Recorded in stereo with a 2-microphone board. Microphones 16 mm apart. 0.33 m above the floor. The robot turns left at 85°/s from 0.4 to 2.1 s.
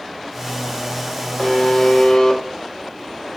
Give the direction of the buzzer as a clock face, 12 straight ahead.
7 o'clock.